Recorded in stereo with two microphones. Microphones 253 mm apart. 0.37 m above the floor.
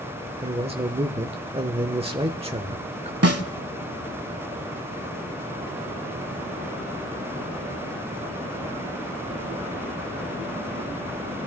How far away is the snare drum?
About 0.9 m.